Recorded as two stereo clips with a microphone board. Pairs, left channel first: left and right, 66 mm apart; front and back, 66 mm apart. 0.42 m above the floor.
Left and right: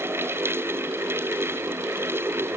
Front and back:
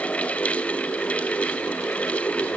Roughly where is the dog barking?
I don't hear a dog barking.